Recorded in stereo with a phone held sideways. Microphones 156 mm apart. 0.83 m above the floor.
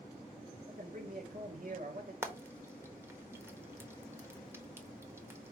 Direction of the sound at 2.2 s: 15° right (ahead or behind).